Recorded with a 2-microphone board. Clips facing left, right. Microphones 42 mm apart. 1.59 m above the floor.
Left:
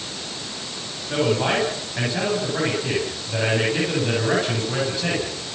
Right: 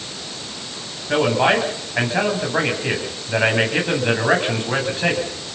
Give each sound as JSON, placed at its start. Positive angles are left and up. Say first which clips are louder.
{"t": 1.1, "sound": "a man speaking", "louder": "right 4 dB", "side_deg": -40, "distance_m": 9.5}